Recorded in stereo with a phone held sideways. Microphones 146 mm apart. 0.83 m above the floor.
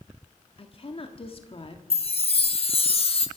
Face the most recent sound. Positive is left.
turn(degrees=45)  # may be behind; listen again after turning